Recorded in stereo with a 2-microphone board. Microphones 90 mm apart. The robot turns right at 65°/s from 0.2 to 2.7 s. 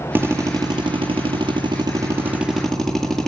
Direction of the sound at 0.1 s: 155° right.